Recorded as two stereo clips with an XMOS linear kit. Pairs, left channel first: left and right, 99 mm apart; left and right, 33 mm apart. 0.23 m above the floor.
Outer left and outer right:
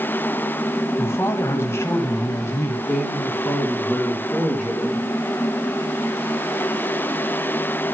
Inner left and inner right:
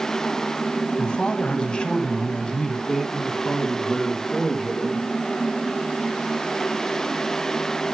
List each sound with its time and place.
1.0 s a man speaking: 25° left (ahead or behind), 1.8 m
2.9 s a man speaking: 5° left (ahead or behind), 3 m